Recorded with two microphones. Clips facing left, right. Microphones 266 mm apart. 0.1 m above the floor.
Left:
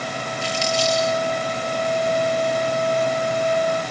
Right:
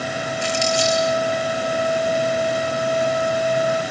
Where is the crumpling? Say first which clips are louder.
Right 2 dB; 50° right (ahead or behind), 7.5 m.